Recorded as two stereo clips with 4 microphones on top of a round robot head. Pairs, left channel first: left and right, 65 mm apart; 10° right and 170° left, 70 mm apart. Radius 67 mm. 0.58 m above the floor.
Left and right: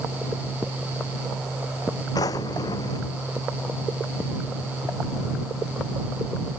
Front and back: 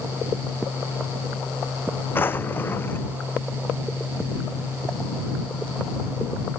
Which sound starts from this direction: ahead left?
A drawer, at 2.1 s.